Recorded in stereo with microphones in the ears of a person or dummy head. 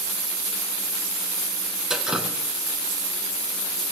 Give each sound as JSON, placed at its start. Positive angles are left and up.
{"t": 1.9, "sound": "dripping", "side_deg": -5, "distance_m": 0.7}